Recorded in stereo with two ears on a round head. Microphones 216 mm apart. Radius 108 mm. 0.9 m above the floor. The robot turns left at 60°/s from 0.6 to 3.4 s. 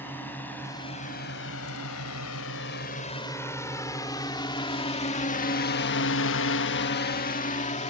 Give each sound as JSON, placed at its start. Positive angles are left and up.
{"t": 0.0, "sound": "a drone", "side_deg": 10}